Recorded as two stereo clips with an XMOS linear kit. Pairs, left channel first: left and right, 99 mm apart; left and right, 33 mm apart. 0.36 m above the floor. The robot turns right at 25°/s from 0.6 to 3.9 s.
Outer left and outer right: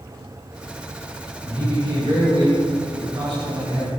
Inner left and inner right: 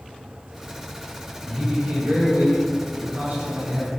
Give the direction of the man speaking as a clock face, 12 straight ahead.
5 o'clock.